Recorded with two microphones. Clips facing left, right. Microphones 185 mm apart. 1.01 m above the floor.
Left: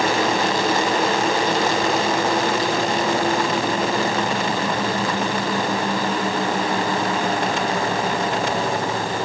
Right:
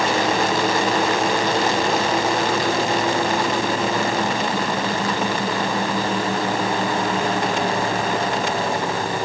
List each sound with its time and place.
Only background noise.